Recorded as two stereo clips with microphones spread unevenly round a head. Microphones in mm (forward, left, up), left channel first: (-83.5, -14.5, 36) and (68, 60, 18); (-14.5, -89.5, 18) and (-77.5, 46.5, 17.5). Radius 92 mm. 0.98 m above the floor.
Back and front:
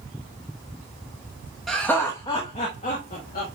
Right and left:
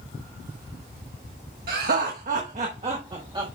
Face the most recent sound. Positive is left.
turn(degrees=175)